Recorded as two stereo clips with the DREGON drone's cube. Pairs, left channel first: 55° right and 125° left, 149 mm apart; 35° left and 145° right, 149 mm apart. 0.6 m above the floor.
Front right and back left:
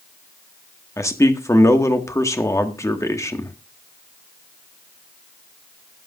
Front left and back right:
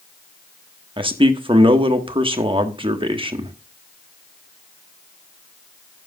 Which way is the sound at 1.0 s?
115° right.